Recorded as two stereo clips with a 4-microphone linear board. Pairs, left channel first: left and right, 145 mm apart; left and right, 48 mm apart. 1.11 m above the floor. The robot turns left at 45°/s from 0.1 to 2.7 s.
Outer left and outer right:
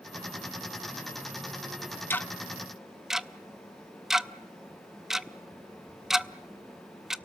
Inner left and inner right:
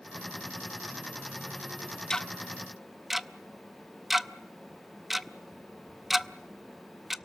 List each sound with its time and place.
2.1 s ticking: 15° left (ahead or behind), 0.5 m; by 7.2 s 5° right (ahead or behind), 0.5 m